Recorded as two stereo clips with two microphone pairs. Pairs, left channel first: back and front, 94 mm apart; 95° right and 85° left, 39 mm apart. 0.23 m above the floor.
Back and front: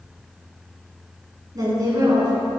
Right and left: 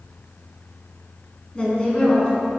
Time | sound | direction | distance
1.6 | a woman speaking | 30° right | 2 m